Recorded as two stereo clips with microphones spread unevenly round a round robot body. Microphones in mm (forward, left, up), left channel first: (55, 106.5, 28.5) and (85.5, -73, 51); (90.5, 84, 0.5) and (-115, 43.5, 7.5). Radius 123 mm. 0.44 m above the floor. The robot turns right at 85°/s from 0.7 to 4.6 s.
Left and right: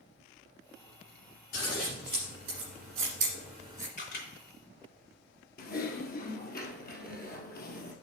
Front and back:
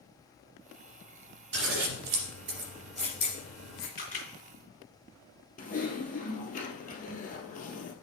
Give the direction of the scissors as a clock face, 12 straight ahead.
7 o'clock.